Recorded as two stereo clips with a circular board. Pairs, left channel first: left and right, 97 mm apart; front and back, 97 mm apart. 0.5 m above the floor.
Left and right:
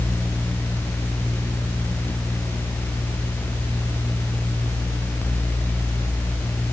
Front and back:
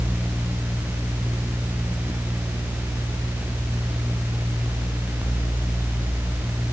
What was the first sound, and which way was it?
Only background noise.